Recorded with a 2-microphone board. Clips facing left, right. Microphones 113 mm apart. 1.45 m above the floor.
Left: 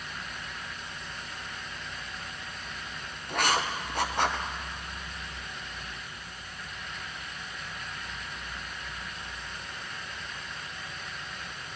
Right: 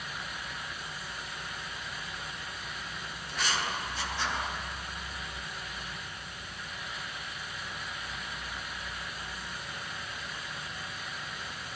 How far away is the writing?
About 0.6 m.